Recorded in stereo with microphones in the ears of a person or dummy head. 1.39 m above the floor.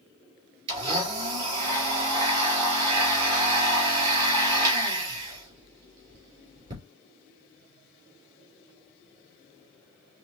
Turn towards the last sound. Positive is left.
turn(degrees=-30)  # may be behind; listen again after turning